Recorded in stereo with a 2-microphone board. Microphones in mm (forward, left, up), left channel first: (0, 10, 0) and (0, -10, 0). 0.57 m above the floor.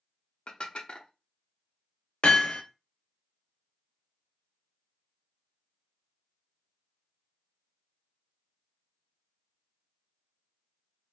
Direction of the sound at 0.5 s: 55° left (ahead or behind).